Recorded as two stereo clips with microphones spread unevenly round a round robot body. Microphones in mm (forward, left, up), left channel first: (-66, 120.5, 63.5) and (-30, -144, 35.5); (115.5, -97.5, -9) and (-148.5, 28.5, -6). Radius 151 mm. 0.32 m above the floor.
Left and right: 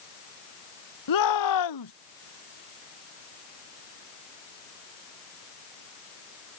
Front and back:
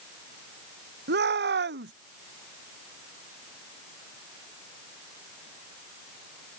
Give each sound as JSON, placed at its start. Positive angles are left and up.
{"t": 1.1, "sound": "a shout", "azimuth_deg": 95}